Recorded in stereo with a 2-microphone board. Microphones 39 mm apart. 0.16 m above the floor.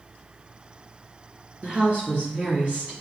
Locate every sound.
1.6 s a woman speaking: 40° right (ahead or behind), 2.0 m